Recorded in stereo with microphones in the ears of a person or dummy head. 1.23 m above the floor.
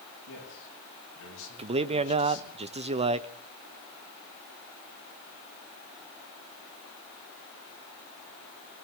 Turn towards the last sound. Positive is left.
turn(degrees=-30)  # may be behind; listen again after turning